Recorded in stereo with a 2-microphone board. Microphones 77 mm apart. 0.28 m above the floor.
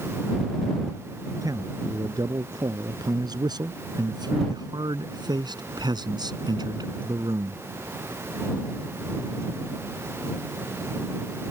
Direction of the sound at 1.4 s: 50° right (ahead or behind).